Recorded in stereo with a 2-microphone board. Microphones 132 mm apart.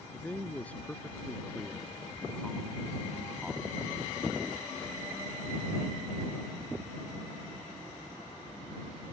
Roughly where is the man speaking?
Centre.